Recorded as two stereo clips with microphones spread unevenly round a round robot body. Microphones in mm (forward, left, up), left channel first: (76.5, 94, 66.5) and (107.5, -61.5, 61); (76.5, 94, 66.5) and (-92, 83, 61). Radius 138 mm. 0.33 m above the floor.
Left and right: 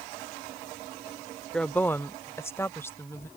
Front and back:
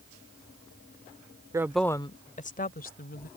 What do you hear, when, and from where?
1.5 s a woman speaking: 175° right; by 3.3 s 25° left